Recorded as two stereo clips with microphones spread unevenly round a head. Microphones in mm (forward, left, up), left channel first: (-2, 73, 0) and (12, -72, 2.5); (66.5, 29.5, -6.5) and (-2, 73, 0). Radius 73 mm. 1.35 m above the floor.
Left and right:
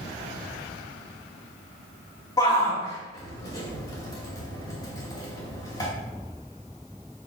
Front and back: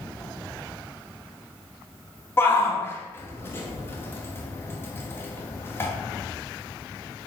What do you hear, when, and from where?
2.4 s a shout: 30° left, 2 m